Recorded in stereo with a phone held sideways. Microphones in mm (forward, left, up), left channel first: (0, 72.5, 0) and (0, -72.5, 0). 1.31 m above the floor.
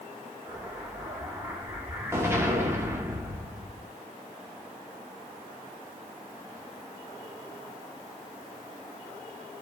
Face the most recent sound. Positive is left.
turn(degrees=-15)  # may be behind; listen again after turning